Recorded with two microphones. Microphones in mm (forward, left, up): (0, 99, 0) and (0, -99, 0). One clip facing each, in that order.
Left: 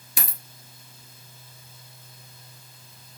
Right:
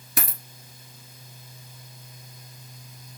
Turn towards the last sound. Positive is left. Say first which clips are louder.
# right 5 dB
turn(degrees=-65)  # may be behind; listen again after turning